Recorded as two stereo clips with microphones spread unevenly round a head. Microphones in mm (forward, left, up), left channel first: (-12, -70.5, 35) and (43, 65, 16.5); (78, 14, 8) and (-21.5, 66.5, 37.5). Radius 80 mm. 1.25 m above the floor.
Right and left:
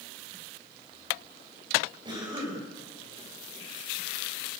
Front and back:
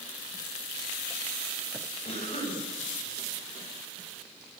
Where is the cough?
5° left, 7.5 m.